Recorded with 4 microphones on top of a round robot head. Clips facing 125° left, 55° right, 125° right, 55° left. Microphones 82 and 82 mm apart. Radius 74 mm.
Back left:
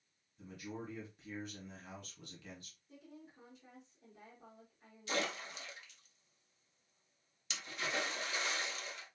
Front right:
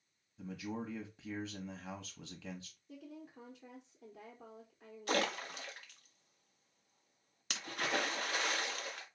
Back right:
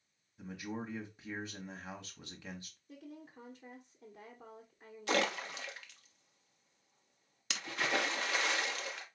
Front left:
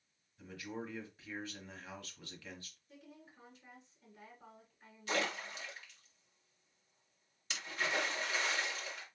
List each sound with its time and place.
0.4 s a man speaking: 55° right, 1.2 m
2.9 s a woman speaking: 85° right, 1.2 m
5.1 s a splash: 95° right, 0.9 m